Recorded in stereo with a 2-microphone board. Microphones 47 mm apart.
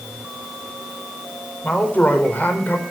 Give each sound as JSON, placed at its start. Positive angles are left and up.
{"t": 1.6, "sound": "a woman speaking", "side_deg": 35, "distance_m": 4.0}